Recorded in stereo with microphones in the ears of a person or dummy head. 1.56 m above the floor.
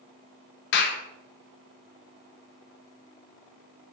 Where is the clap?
65° left (ahead or behind), 1.4 m.